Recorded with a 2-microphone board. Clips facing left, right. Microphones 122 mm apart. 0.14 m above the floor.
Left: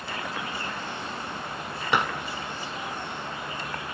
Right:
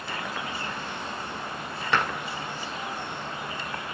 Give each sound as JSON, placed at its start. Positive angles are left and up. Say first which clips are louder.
{"t": 1.9, "sound": "dishes clattering", "louder": "left 1 dB", "side_deg": 15, "distance_m": 0.8}